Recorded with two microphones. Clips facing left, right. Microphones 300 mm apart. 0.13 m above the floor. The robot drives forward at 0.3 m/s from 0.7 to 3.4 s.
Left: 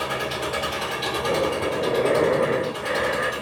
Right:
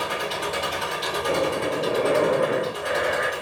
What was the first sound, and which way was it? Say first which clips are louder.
An engine running: left 1 dB; 65° left (ahead or behind).